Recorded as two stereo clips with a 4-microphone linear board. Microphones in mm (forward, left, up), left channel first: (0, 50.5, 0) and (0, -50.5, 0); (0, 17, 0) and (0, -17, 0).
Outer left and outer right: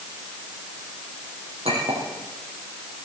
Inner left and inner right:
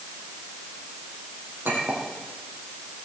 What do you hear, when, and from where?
1.6 s a clink: 85° right, 6 m